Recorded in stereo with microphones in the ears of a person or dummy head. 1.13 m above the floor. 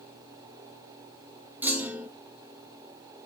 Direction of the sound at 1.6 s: Centre (ahead or behind).